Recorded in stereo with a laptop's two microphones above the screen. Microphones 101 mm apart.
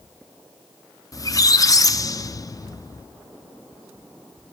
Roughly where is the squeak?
Left.